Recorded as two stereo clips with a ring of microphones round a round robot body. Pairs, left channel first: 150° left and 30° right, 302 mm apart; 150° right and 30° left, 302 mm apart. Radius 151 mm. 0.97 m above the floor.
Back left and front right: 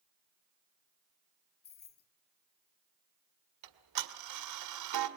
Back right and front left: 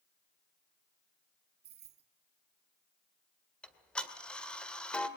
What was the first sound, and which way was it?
Keys jangling, 90° left.